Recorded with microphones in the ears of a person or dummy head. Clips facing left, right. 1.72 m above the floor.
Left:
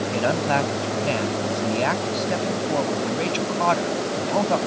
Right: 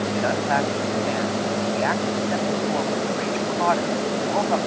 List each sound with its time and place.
0.1 s a man speaking: 45° left (ahead or behind)